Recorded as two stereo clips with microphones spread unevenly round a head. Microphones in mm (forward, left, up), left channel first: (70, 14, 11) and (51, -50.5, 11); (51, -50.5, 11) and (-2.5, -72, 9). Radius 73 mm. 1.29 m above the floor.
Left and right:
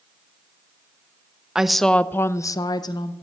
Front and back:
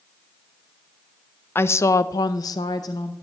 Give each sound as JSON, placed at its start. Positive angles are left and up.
{"t": 1.6, "sound": "a woman speaking", "azimuth_deg": -25, "distance_m": 0.7}